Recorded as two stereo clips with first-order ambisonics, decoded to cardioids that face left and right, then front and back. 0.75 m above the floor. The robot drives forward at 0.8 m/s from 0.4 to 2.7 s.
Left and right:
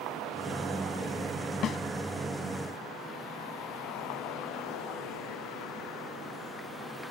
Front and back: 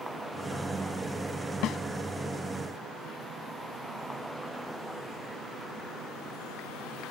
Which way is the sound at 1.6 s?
40° left.